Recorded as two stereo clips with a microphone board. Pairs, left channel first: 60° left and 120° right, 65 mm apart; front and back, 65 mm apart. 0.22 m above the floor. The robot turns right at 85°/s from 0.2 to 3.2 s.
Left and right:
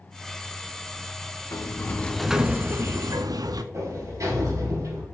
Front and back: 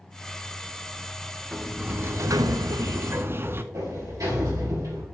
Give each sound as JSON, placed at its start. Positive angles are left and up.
{"t": 1.5, "sound": "a sliding door", "azimuth_deg": 90, "distance_m": 0.5}
{"t": 3.7, "sound": "a sliding door", "azimuth_deg": -155, "distance_m": 3.5}